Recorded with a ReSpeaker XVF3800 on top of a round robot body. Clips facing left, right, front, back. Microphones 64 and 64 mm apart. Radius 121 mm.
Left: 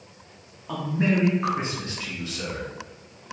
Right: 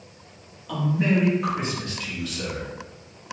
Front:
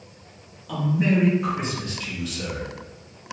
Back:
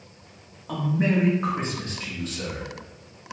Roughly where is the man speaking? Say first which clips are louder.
Right 1 dB, front 1 dB; behind left.